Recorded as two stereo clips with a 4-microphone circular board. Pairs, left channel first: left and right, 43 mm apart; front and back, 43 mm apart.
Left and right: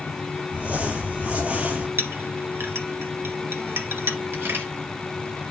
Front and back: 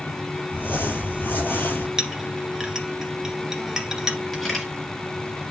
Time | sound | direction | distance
0.5 | crumpling | 35° right | 4.5 m
2.0 | a clink | 105° right | 1.7 m
4.3 | a camera shutter | 80° right | 3 m